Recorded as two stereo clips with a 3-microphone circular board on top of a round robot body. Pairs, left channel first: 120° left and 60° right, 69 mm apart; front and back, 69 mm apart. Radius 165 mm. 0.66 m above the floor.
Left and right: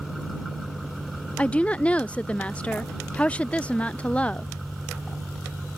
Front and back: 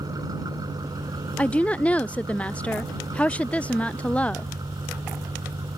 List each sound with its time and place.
0.0 s an engine running: 150° right
1.4 s a woman speaking: 60° left